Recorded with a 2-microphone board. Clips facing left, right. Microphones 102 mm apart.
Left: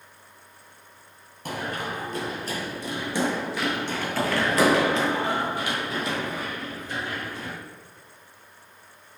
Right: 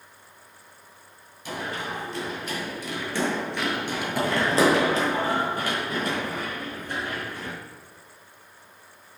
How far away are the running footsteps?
About 1.4 m.